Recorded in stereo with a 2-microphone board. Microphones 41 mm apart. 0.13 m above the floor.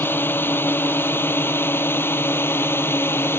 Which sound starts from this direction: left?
A drone, at 0.0 s.